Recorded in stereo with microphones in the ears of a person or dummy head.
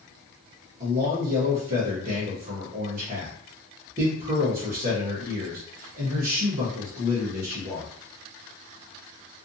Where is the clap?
No clap in this recording.